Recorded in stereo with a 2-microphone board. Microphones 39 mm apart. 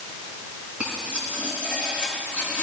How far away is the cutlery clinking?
About 2.5 m.